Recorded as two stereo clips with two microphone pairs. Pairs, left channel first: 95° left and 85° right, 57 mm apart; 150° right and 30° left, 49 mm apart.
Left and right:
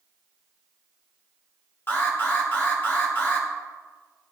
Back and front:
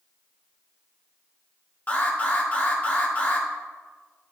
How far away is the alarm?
About 1.8 m.